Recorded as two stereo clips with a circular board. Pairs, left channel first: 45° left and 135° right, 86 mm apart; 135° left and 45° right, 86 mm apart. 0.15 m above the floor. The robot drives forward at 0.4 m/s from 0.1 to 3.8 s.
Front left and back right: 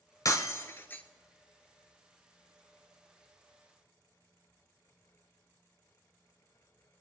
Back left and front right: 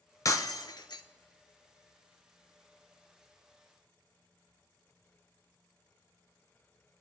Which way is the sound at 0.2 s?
90° left.